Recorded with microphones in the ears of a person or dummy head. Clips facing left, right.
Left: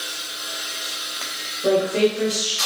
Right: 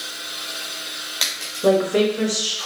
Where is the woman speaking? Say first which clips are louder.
Right 1 dB; 55° right (ahead or behind), 0.8 m.